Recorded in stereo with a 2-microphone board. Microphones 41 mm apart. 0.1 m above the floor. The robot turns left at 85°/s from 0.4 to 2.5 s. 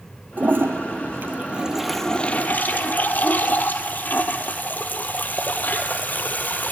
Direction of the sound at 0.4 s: 50° right.